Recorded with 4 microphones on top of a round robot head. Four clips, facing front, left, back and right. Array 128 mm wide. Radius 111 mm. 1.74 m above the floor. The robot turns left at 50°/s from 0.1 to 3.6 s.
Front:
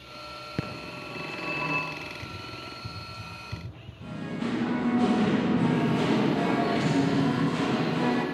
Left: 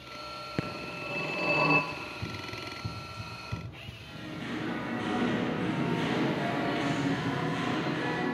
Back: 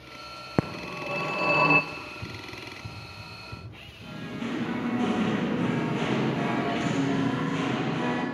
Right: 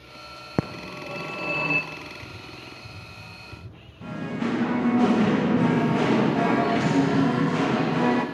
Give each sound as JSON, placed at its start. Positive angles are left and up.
{"t": 0.6, "sound": "a phone ringing", "azimuth_deg": -140, "distance_m": 0.7}
{"t": 1.9, "sound": "running footsteps", "azimuth_deg": 135, "distance_m": 3.0}
{"t": 4.0, "sound": "singing", "azimuth_deg": -80, "distance_m": 2.0}